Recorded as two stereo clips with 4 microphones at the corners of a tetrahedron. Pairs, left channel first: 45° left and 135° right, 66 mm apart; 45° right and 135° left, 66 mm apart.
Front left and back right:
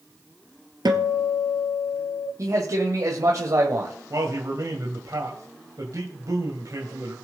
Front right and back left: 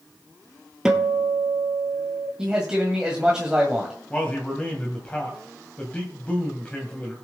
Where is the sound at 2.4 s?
150° right, 1.9 m.